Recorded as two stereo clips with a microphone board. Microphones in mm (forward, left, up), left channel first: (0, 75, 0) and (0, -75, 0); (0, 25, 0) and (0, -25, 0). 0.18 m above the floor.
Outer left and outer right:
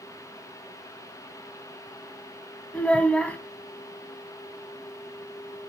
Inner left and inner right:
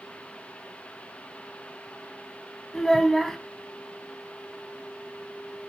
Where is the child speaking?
5° left (ahead or behind), 0.6 m.